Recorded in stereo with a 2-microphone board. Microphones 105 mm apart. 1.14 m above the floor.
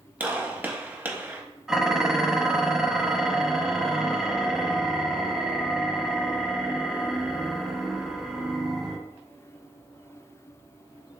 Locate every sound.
0.2 s a gunshot: 15° right (ahead or behind), 0.6 m
1.7 s dishes clattering: 5° right (ahead or behind), 0.6 m